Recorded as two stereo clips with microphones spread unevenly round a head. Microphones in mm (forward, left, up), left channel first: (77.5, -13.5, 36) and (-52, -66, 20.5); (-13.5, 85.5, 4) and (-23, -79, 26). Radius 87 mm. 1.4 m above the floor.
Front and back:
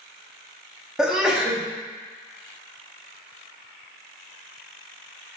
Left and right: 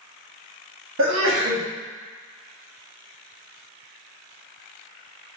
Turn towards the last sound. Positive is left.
turn(degrees=-75)